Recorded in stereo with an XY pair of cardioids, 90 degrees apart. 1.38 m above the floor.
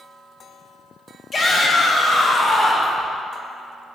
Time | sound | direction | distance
1.3 | a shout | 40° left | 3 m